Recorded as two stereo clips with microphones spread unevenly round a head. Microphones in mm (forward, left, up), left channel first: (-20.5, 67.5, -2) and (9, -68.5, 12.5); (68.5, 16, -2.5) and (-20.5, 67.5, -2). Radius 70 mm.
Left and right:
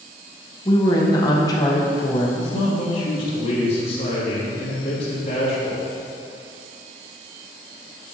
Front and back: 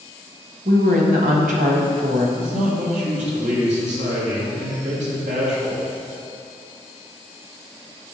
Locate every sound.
0.7 s a woman speaking: 170° left, 1.2 m
2.4 s a man speaking: 155° left, 2.5 m